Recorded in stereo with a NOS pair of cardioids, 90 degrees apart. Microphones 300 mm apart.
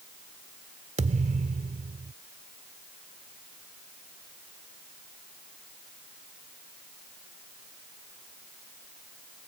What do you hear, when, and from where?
1.0 s a thud: 25° right